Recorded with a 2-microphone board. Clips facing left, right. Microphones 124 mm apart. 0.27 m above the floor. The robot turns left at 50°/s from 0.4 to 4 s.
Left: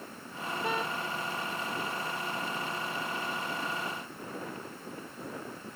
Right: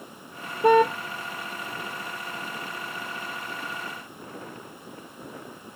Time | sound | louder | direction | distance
0.6 | a car horn | right 17 dB | 60° right (ahead or behind) | ?